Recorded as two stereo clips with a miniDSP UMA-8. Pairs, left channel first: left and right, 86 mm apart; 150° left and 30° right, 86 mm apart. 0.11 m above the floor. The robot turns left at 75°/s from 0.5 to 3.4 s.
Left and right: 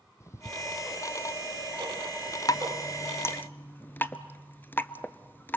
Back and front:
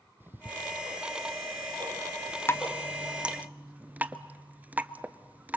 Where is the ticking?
35° left, 1.9 m; by 3.5 s straight behind, 1.9 m.